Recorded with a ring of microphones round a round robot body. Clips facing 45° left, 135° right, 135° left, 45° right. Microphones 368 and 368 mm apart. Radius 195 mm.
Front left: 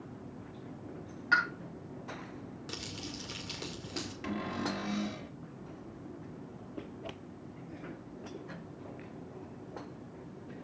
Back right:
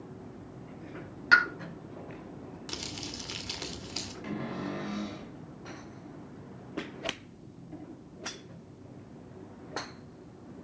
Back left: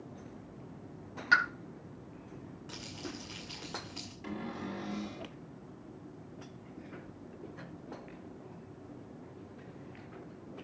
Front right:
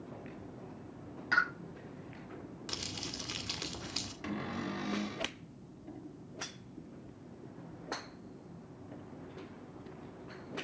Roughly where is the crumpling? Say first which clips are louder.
Back right 1 dB, back left 3 dB; ahead right.